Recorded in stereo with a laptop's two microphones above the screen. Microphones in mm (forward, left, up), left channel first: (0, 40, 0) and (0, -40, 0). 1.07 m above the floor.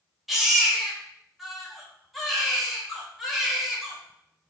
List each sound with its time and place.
0.3 s a baby crying: centre (ahead or behind), 3 m